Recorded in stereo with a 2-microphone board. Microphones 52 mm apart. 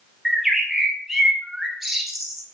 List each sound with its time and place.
0.2 s a bird: 5° right (ahead or behind), 0.9 m